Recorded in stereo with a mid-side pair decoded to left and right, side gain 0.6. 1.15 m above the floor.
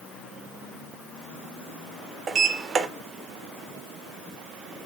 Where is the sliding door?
35° right, 0.7 m.